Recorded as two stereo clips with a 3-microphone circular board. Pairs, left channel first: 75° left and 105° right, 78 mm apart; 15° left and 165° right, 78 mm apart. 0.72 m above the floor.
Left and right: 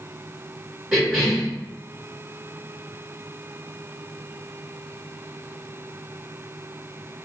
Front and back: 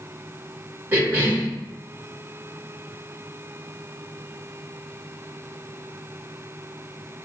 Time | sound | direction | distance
0.9 | a cough | straight behind | 0.7 m